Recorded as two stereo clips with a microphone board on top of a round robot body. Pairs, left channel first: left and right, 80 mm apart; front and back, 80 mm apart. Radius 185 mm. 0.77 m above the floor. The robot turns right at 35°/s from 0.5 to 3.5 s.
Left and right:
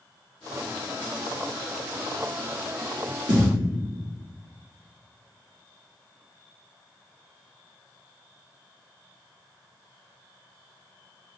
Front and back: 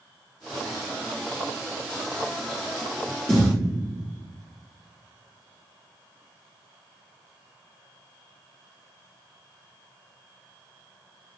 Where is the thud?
70° right, 0.6 m; by 3.5 s 60° right, 0.6 m.